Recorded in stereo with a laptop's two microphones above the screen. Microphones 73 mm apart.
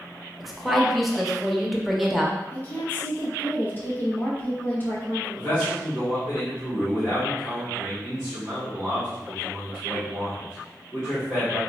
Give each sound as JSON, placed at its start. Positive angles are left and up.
{"t": 0.4, "sound": "a woman speaking", "side_deg": 0, "distance_m": 0.6}
{"t": 2.5, "sound": "a woman speaking", "side_deg": 25, "distance_m": 0.5}
{"t": 5.3, "sound": "a man speaking", "side_deg": -30, "distance_m": 1.0}